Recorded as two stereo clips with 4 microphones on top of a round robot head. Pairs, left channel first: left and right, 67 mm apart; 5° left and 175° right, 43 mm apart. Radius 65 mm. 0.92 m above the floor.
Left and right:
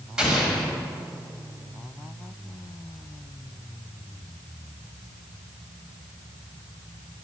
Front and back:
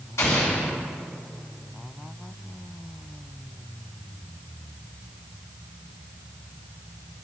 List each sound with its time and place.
0.2 s an explosion: 10° right, 1.8 m